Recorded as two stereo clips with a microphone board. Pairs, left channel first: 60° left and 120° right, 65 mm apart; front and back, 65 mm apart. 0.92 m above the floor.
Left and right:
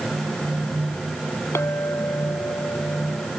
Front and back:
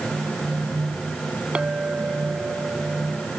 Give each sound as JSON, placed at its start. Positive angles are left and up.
{"t": 1.6, "sound": "a clink", "azimuth_deg": 105}